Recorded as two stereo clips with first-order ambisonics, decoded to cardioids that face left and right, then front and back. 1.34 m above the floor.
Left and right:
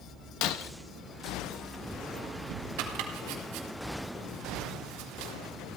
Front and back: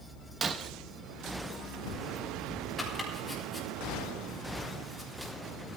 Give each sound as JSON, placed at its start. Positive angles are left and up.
{"t": 0.4, "sound": "breaking glass", "azimuth_deg": 110, "distance_m": 1.0}
{"t": 2.8, "sound": "chopping", "azimuth_deg": -85, "distance_m": 3.5}